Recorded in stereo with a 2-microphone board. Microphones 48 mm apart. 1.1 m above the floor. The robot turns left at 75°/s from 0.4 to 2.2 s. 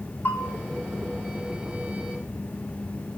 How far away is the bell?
About 1.9 m.